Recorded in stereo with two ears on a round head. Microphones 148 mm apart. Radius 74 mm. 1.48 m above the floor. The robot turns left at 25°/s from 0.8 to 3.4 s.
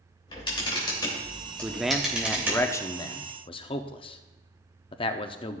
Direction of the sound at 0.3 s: 30° left (ahead or behind).